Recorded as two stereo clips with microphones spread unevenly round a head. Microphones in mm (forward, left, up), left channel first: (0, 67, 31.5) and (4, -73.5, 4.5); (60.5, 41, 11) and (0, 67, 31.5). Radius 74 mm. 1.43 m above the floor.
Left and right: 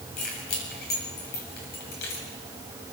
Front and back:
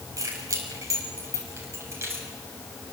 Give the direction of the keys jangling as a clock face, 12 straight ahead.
8 o'clock.